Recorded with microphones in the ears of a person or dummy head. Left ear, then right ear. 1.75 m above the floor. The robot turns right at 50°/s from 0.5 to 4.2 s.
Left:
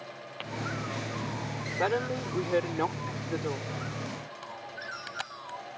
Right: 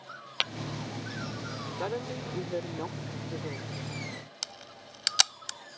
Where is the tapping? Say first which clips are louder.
Right 12 dB; 70° right (ahead or behind); by 0.5 s 65° right (ahead or behind).